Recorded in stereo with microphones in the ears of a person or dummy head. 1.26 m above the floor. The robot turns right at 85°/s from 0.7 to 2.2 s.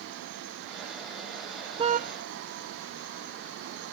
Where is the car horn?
30° right (ahead or behind); by 2.1 s 60° right (ahead or behind).